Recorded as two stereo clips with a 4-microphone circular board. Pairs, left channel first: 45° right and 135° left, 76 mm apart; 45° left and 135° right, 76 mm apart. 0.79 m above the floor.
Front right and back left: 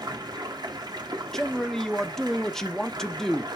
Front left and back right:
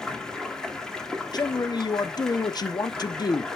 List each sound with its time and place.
0.0 s running water: 125° left, 1.6 m
1.3 s a man speaking: 40° left, 0.8 m